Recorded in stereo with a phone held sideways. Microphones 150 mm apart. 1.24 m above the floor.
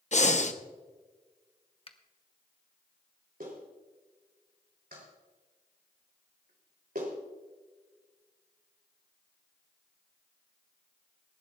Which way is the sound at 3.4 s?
75° right (ahead or behind).